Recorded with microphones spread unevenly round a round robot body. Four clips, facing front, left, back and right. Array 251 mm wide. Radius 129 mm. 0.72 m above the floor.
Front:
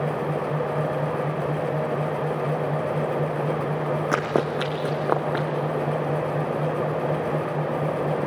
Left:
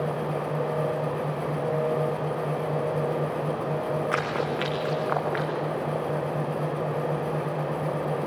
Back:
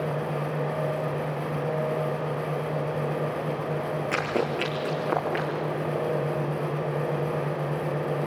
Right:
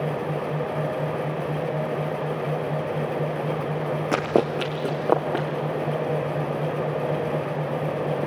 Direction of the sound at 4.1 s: 65° right.